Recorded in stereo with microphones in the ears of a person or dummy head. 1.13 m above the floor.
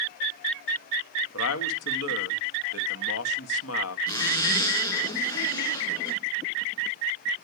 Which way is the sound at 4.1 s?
20° left (ahead or behind).